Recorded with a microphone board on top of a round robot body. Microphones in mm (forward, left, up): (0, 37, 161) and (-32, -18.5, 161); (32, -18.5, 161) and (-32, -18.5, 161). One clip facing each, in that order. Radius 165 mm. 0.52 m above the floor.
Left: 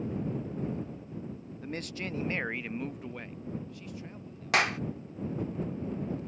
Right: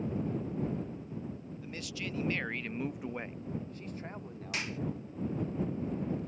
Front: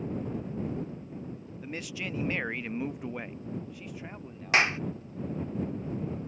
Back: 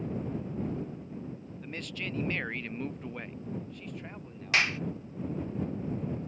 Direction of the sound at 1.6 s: 80° left.